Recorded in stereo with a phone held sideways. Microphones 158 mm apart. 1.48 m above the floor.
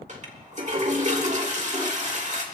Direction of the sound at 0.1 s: 50° right (ahead or behind).